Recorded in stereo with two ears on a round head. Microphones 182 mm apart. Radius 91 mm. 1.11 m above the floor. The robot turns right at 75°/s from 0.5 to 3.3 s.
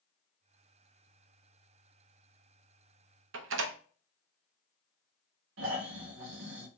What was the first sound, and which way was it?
A door slam, 65° right (ahead or behind).